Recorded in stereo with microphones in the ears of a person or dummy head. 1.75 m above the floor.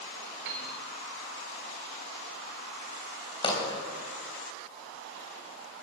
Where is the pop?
25° left (ahead or behind), 3 m.